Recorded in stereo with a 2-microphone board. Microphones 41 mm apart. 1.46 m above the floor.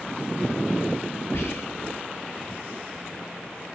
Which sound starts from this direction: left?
Whispering, at 1.3 s.